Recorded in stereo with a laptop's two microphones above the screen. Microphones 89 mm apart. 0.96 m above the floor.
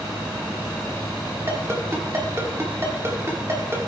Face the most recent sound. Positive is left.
turn(degrees=-30)  # may be behind; listen again after turning